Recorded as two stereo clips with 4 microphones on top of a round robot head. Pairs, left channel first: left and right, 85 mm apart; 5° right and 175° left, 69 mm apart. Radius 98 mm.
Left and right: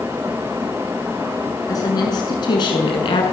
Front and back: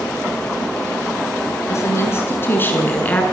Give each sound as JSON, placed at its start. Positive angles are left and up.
{"t": 1.7, "sound": "a woman speaking", "azimuth_deg": 45, "distance_m": 7.0}